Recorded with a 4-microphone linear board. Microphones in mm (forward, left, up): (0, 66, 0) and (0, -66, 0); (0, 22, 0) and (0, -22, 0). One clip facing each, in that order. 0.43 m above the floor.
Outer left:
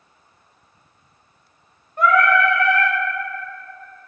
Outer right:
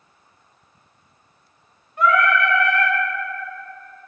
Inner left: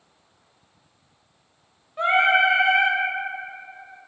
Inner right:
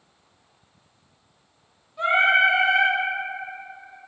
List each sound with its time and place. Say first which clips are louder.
2.0 s singing: outer left 2 dB, even; 45° left (ahead or behind), 0.8 m